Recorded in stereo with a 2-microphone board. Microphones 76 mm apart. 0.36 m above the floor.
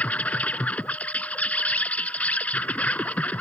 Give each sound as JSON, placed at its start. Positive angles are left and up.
{"t": 0.0, "sound": "an insect", "side_deg": 20}